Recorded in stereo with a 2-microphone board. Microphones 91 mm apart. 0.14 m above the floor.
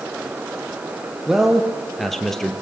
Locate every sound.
1.3 s a man speaking: 5° right (ahead or behind), 3 m; by 2.5 s 5° left (ahead or behind), 2.5 m